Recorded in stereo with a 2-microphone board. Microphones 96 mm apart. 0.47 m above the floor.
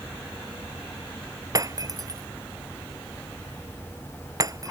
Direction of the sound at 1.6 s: 40° right (ahead or behind).